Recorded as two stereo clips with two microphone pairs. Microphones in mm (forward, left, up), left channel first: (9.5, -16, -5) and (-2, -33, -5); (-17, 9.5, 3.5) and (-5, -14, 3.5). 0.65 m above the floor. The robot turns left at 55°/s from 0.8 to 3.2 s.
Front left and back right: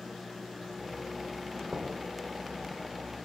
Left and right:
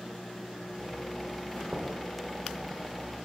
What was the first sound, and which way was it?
Knocking, 85° right.